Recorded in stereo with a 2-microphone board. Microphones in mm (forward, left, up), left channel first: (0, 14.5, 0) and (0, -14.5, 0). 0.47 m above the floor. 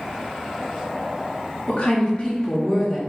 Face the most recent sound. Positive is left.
turn(degrees=5)  # may be behind; listen again after turning